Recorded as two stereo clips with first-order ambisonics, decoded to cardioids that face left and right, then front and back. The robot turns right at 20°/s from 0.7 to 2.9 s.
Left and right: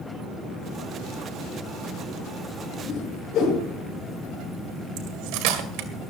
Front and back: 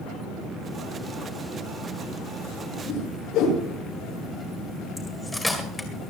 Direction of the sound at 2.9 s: 40° left.